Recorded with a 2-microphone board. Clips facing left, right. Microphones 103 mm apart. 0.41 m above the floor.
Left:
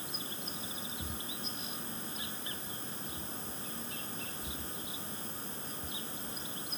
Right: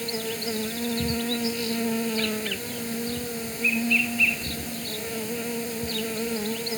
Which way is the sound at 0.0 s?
80° right.